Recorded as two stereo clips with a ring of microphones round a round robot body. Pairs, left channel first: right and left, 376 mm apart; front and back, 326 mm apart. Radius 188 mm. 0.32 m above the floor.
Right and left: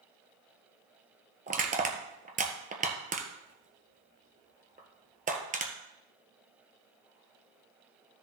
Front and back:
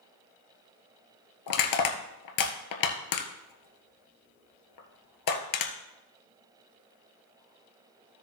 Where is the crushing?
20° left, 1.3 m.